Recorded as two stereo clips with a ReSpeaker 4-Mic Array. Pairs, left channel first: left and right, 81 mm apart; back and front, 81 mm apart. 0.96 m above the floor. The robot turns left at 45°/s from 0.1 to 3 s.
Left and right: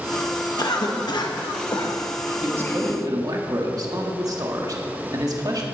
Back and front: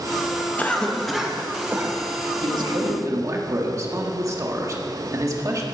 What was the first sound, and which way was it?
A cough, 115° left.